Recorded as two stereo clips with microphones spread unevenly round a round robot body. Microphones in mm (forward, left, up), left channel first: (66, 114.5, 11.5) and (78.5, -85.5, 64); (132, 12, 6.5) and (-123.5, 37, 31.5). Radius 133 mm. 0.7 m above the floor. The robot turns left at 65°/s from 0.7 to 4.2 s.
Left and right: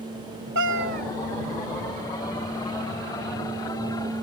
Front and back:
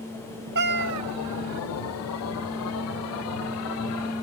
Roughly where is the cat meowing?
Behind right.